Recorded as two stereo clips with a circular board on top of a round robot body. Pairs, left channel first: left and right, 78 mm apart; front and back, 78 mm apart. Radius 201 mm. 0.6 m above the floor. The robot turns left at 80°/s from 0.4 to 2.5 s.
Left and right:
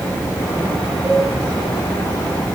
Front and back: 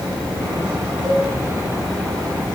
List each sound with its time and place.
1.0 s a cowbell: 140° right, 8.5 m; by 1.3 s 160° right, 8.5 m